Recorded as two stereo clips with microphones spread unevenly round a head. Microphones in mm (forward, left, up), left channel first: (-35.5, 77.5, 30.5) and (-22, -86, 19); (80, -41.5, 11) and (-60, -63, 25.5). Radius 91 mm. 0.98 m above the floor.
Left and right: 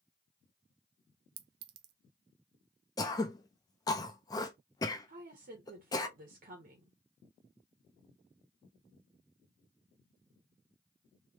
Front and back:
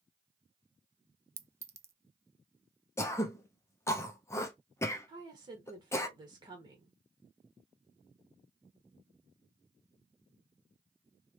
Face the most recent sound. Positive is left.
turn(degrees=-110)